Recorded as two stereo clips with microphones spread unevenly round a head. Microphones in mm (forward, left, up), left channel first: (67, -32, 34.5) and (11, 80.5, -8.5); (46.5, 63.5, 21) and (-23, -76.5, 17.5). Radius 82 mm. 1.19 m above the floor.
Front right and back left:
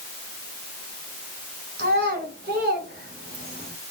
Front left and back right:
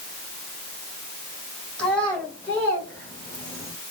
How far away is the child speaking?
About 3 m.